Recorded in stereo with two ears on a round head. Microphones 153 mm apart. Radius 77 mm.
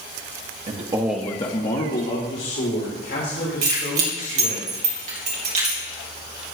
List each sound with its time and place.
0.7 s a man speaking: 40° right (ahead or behind), 1.0 m; by 4.6 s 80° left, 5 m
3.6 s keys jangling: 45° right (ahead or behind), 3 m